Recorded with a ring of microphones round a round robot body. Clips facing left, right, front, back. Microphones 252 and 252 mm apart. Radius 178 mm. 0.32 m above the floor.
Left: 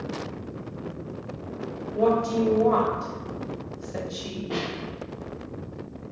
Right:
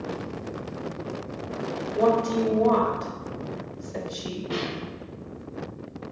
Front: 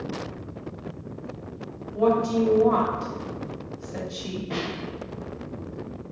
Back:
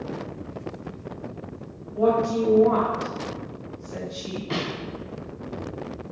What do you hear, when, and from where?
1.9 s a woman speaking: 5° left, 1.1 m
4.5 s a snare drum: 155° right, 0.8 m